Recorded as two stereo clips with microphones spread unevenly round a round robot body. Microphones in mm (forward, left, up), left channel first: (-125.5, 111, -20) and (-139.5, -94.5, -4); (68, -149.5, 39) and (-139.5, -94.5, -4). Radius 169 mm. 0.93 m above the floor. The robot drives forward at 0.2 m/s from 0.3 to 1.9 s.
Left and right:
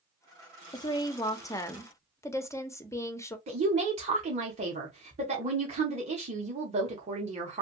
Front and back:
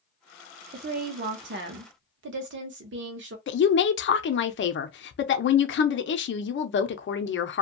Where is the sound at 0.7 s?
150° left, 0.5 m; by 3.4 s 160° left, 0.7 m.